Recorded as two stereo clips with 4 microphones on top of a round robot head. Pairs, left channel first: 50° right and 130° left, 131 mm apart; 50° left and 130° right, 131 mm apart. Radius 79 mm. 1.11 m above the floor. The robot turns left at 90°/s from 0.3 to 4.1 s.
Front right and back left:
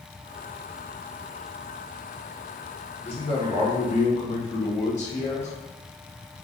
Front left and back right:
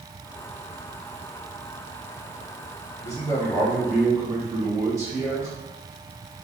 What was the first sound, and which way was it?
A man speaking, 25° left.